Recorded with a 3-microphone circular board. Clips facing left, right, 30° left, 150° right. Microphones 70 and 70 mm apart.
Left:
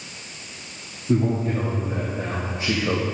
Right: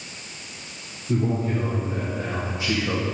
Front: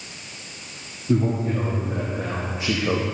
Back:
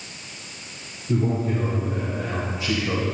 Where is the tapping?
No tapping in this recording.